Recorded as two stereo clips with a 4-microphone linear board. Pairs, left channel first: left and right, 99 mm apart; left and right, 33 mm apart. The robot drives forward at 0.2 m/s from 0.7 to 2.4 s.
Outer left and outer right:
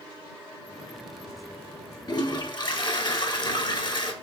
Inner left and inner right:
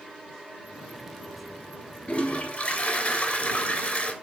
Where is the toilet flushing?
45° left (ahead or behind), 0.6 m; by 4.1 s 50° left (ahead or behind), 0.6 m.